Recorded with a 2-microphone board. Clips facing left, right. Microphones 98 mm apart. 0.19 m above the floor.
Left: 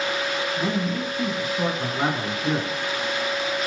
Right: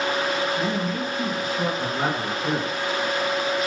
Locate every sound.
0.6 s a man speaking: 10° left (ahead or behind), 1.9 m